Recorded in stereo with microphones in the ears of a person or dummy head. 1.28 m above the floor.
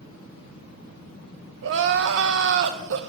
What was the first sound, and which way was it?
Crying, 70° right (ahead or behind).